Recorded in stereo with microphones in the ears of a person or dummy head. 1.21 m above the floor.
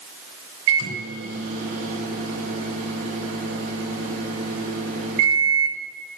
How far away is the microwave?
About 3 m.